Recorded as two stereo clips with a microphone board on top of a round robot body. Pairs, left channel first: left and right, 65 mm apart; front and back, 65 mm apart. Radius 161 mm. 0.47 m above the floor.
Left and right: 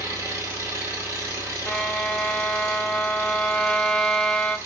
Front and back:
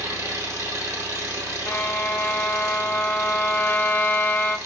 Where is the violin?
20° left, 0.7 m.